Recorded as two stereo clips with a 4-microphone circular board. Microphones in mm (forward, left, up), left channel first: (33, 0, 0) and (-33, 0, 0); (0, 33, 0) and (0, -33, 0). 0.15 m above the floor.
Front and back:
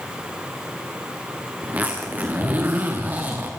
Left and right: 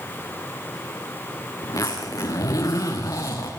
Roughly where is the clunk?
No clunk in this recording.